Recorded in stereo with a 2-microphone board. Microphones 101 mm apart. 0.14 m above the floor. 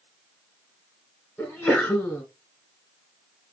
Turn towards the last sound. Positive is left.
turn(degrees=15)  # may be behind; listen again after turning